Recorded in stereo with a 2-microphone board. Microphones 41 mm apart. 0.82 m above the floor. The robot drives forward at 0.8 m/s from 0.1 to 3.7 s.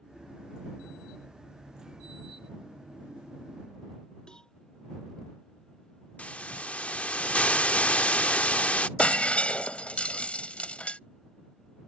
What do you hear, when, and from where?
4.3 s a cowbell: 20° left (ahead or behind)
6.2 s a hiss: 35° left (ahead or behind)
9.0 s breaking glass: 30° left (ahead or behind)